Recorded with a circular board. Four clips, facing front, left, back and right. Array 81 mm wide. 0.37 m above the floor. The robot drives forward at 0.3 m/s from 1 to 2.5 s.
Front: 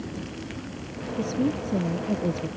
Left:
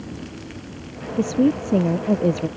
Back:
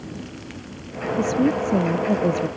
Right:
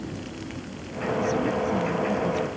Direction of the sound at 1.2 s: 115° left.